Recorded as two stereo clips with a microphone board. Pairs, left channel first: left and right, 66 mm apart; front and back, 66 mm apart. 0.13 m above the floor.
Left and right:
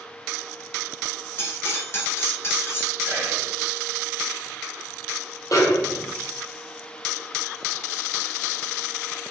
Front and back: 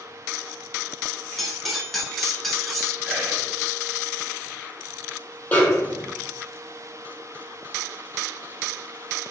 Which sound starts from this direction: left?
Cutlery clinking, at 1.4 s.